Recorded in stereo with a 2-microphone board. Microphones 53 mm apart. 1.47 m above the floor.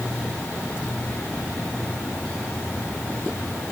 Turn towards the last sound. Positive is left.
No sound to turn to.